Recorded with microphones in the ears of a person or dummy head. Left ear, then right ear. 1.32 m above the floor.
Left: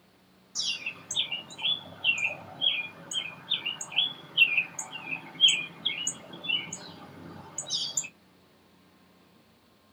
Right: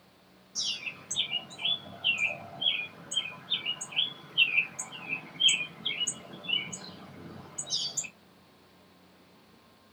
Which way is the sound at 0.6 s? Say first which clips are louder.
Left 2 dB; 25° left (ahead or behind).